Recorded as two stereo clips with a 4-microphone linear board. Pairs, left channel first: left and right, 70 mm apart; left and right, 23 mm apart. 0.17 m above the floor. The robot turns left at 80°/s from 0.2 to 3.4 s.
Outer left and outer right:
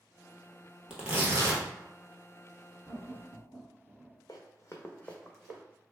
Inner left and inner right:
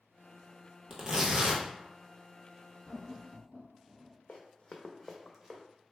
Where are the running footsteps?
65° left (ahead or behind), 0.7 m; by 5.6 s 5° right (ahead or behind), 0.8 m.